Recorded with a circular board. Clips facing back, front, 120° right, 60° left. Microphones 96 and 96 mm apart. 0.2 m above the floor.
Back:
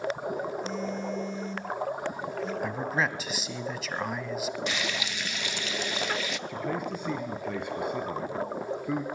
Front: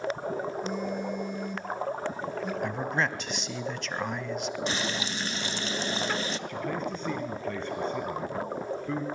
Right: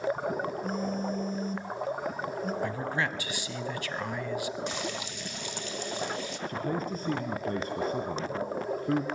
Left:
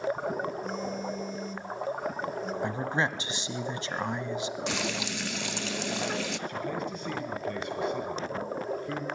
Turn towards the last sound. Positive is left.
turn(degrees=-105)